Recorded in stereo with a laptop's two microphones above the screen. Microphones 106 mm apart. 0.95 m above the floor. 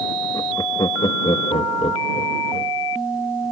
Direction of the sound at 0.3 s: 40° left (ahead or behind).